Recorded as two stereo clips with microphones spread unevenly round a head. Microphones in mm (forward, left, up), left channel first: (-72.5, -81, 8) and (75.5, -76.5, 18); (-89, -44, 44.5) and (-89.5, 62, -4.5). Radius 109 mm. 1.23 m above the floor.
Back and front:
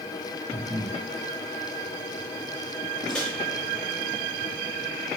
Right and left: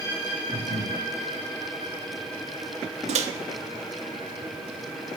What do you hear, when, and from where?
0.5 s breathing: 105° left, 2 m
3.1 s a microwave: 95° left, 0.6 m